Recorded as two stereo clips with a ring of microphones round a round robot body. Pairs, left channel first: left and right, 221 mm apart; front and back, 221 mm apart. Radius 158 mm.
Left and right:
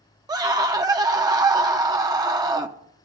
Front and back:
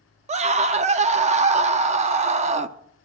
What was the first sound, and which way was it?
A scream, 150° right.